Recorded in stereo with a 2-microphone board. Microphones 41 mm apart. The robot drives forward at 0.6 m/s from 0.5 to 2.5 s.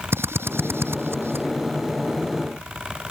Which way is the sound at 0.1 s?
75° right (ahead or behind).